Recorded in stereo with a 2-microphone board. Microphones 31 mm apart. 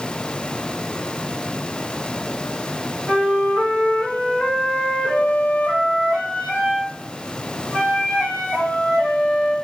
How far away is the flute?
About 1.8 m.